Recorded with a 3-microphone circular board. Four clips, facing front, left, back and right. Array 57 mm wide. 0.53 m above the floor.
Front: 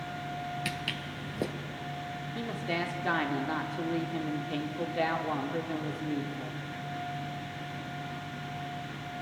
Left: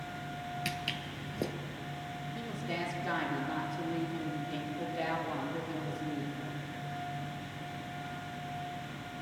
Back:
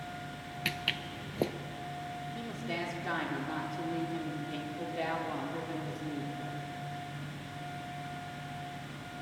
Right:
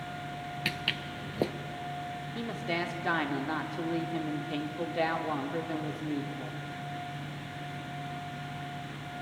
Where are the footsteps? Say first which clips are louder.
Right 7 dB, even; 120° right, 0.5 m.